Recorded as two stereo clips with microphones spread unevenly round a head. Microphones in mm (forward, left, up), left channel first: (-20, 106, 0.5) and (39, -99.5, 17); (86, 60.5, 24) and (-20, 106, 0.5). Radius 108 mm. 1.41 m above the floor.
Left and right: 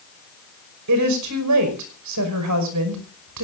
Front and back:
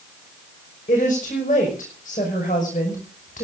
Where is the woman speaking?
80° right, 5.5 m.